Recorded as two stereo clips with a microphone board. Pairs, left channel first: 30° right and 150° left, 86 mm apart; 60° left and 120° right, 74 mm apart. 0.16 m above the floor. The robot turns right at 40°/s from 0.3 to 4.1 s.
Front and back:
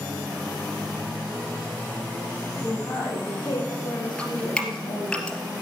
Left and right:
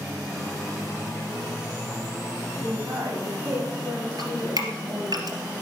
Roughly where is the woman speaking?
Right.